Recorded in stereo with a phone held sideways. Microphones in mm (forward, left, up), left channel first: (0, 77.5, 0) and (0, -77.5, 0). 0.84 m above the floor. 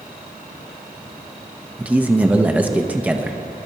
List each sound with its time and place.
1.8 s a man speaking: 10° right (ahead or behind), 0.7 m